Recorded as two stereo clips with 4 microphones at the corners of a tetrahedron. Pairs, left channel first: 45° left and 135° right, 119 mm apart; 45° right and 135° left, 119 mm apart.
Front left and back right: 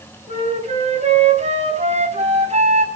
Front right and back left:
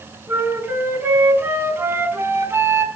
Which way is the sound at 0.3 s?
150° right.